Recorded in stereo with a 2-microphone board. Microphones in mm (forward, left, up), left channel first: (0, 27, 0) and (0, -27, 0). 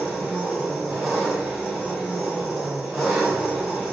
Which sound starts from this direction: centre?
An engine running, at 0.0 s.